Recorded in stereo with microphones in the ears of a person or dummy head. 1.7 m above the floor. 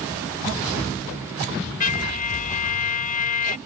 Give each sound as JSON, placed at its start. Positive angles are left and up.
{"t": 1.8, "sound": "a trumpet", "side_deg": 40}